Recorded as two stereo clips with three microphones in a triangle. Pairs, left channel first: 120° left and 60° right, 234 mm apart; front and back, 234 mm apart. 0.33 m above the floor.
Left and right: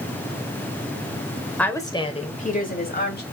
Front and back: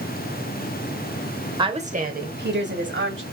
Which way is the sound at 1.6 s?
165° right.